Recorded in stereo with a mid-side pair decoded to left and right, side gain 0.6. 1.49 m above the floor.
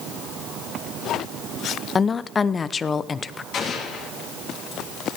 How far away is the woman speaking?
About 0.7 m.